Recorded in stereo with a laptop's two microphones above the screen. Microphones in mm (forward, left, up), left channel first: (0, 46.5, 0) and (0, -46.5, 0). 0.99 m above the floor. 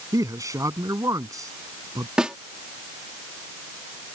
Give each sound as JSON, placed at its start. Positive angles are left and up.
{"t": 0.1, "sound": "a man speaking", "side_deg": -35}
{"t": 2.2, "sound": "a snare drum", "side_deg": -10}